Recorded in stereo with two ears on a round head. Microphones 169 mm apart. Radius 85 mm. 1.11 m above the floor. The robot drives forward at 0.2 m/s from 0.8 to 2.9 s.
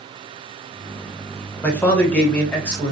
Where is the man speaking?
10° left (ahead or behind), 0.7 m; by 2.9 s 5° left (ahead or behind), 0.9 m.